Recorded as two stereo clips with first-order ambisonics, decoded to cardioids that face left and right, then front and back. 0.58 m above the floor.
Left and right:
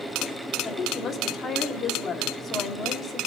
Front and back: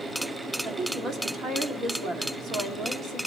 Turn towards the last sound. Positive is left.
turn(degrees=145)